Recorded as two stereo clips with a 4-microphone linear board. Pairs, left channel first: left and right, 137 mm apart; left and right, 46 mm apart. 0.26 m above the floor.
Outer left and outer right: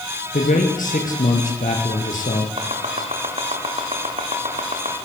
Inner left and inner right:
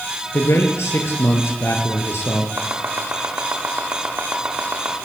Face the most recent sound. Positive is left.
turn(degrees=-50)  # may be behind; listen again after turning